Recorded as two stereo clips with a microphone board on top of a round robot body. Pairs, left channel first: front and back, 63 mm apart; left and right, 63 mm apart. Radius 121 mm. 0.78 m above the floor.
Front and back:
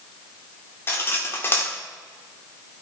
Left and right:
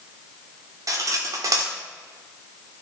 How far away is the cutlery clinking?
About 1.1 m.